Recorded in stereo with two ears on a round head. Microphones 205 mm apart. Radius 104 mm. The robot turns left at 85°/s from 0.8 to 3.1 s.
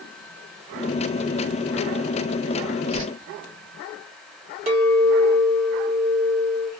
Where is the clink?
25° right (ahead or behind), 1.4 m.